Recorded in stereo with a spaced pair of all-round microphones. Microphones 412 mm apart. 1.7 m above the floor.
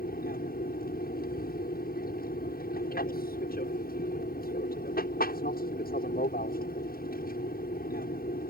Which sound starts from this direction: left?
An aircraft, at 0.0 s.